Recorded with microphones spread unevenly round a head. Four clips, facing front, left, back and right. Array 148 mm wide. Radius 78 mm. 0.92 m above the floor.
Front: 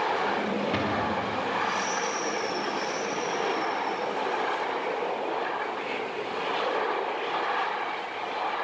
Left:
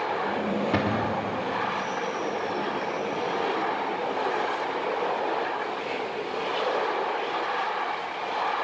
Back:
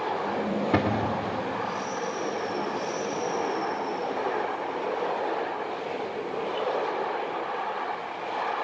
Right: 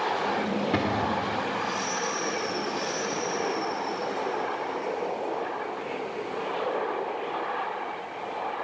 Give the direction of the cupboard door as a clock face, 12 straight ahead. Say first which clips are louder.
Left 1 dB, back 2 dB; 6 o'clock.